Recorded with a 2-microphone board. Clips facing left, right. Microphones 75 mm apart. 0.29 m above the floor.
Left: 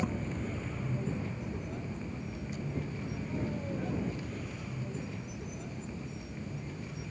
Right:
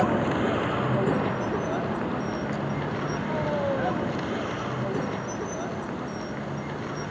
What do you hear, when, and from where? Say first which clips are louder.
0.0 s a vehicle: right 12 dB; 85° right; by 7.1 s 70° right (ahead or behind)